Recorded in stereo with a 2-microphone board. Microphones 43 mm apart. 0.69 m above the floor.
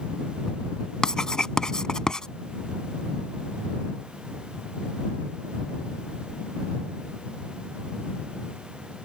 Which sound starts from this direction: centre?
Writing, at 1.0 s.